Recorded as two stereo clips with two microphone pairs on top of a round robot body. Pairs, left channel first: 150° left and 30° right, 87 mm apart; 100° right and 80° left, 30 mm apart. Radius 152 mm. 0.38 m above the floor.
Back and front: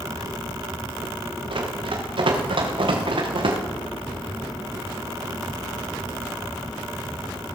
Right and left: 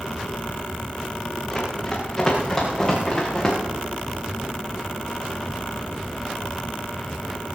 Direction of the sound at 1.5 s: 30° right.